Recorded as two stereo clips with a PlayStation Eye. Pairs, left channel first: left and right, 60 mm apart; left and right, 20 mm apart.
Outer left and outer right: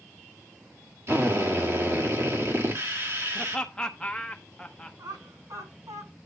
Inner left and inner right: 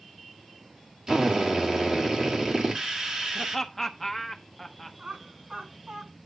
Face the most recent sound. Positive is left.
turn(degrees=-85)